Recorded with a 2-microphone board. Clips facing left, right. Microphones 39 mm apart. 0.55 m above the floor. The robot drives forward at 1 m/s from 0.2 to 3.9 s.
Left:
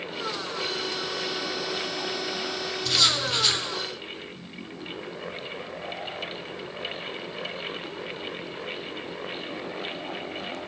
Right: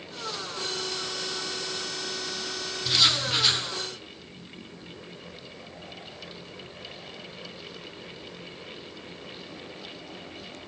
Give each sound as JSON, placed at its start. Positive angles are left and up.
{"t": 2.9, "sound": "writing", "side_deg": -10, "distance_m": 1.6}